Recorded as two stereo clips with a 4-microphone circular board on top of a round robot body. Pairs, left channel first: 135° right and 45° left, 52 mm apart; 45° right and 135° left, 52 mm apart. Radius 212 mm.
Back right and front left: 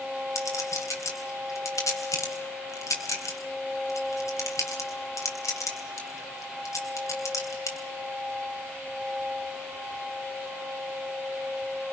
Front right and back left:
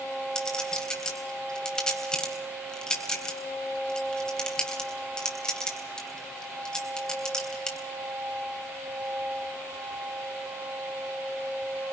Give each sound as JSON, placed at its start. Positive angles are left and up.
{"t": 0.3, "sound": "a clink", "azimuth_deg": -120, "distance_m": 3.5}